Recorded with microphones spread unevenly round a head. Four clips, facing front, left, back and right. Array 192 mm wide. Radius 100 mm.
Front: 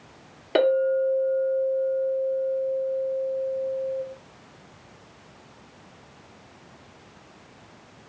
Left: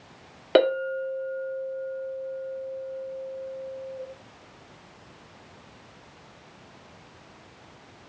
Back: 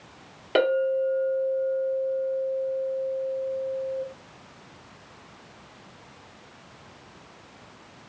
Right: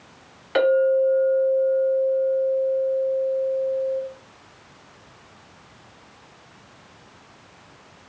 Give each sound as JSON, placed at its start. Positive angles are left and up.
{"t": 0.6, "sound": "a clink", "azimuth_deg": 70, "distance_m": 1.0}